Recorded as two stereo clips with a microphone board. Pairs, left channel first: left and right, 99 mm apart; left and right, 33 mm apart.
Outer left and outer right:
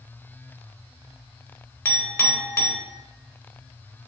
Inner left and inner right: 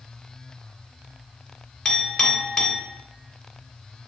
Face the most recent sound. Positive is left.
turn(degrees=25)  # may be behind; listen again after turning